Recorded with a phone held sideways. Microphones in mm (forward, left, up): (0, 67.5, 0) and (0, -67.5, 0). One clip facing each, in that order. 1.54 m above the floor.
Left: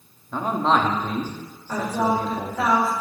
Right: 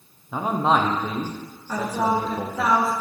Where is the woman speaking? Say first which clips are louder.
Even; 5° right (ahead or behind), 2 m.